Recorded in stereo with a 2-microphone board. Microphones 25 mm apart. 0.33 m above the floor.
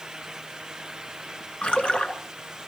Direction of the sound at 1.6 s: 55° left (ahead or behind).